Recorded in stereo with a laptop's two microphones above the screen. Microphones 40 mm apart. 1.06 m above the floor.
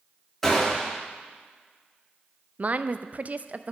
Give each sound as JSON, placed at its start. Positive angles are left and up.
{"t": 0.4, "sound": "a gunshot", "side_deg": 10, "distance_m": 3.0}
{"t": 2.6, "sound": "a woman speaking", "side_deg": -40, "distance_m": 0.5}